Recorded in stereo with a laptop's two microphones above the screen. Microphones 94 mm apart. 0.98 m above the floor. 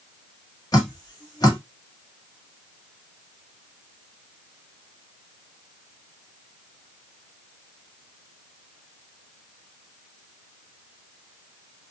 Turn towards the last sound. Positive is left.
turn(degrees=45)  # may be behind; listen again after turning